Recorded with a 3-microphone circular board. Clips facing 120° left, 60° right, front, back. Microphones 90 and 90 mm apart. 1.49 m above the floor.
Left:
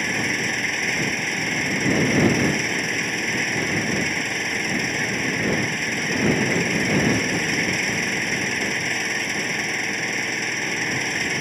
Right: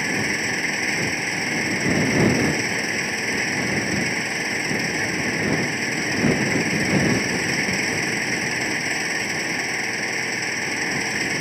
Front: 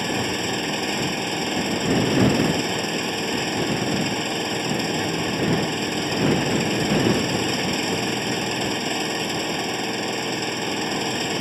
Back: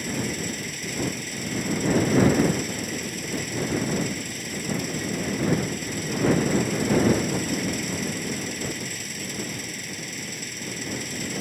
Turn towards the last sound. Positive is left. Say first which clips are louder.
# even, front 5 dB
turn(degrees=25)